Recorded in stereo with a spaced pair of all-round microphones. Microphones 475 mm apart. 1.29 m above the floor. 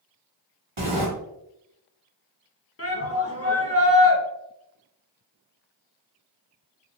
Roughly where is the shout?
Left.